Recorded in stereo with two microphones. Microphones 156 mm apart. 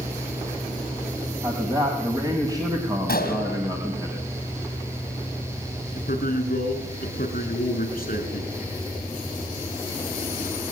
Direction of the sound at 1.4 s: 25° right (ahead or behind).